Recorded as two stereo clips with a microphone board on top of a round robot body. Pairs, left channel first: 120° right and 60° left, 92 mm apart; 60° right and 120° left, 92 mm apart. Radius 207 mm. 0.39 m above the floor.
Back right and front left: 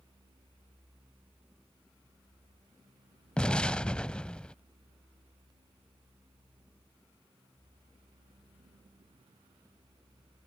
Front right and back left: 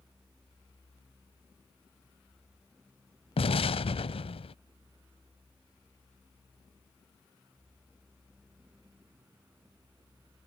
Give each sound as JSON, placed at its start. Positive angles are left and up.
{"t": 3.4, "sound": "an explosion", "azimuth_deg": -40}